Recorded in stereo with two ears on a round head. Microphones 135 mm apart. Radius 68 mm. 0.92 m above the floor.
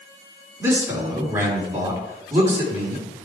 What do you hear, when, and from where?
0.6 s a man speaking: 20° right (ahead or behind), 3 m